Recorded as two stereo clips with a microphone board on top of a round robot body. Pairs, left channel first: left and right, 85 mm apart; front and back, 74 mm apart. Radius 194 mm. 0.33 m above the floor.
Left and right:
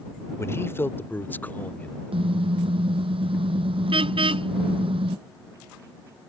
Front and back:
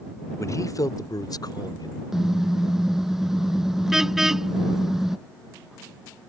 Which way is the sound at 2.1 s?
95° right.